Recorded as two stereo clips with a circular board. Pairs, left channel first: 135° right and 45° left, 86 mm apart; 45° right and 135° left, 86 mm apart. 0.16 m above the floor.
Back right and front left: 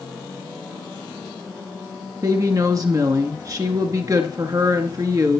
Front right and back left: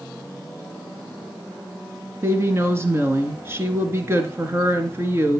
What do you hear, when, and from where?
2.2 s a woman speaking: 80° left, 2 m